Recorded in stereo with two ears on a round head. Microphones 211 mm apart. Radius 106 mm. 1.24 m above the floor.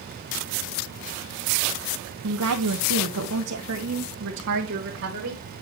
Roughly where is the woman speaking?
Right.